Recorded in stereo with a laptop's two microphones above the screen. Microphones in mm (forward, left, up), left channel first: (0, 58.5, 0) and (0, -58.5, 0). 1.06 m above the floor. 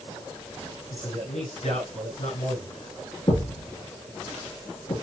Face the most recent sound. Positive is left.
turn(degrees=40)  # may be behind; listen again after turning